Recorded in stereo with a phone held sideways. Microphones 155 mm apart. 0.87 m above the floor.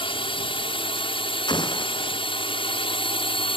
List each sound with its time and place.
0.0 s a drone: 35° left (ahead or behind)
1.5 s an explosion: 30° left (ahead or behind)